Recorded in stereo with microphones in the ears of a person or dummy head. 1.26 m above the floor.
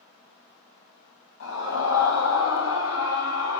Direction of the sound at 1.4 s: 80° left.